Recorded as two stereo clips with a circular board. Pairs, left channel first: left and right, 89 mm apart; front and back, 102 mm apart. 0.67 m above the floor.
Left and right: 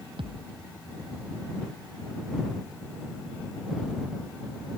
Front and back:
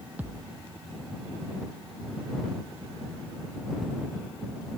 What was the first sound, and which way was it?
A thud, 105° right.